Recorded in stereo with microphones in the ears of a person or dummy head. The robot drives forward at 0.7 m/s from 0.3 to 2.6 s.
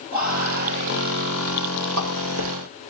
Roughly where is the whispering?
Right.